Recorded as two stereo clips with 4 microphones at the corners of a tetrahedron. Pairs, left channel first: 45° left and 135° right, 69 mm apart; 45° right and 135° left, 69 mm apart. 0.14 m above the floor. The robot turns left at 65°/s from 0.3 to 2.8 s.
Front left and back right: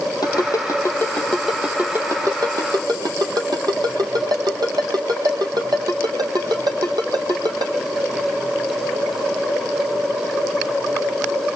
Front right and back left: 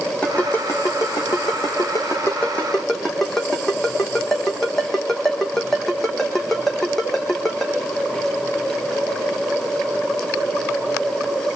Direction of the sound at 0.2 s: 30° left.